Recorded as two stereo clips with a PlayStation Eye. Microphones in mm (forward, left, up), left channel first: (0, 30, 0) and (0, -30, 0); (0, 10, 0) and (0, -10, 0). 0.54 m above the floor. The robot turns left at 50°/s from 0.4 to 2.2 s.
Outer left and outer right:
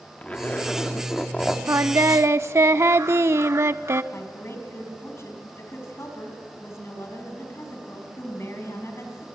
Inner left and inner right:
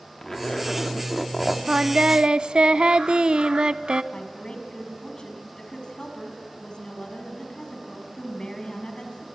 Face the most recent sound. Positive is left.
turn(degrees=45)  # may be behind; listen again after turning